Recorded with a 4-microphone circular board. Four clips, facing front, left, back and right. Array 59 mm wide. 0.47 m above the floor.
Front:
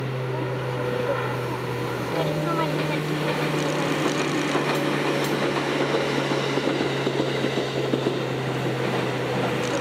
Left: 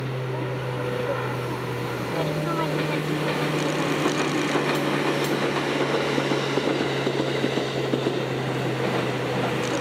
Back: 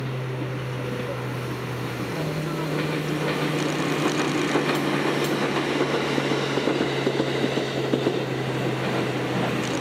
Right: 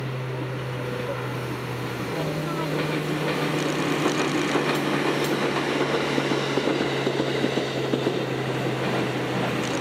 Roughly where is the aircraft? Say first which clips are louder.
Left 2 dB, front 3 dB; ahead.